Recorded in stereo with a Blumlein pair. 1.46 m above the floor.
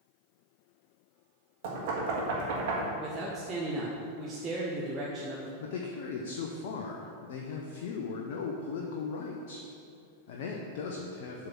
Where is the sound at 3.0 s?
20° right, 1.0 m.